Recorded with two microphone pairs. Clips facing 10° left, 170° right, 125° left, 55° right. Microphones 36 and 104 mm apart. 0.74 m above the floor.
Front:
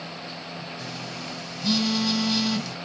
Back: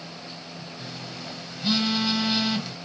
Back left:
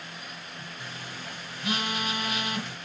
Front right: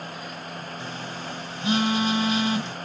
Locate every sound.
0.8 s a phone buzzing: 110° right, 1.0 m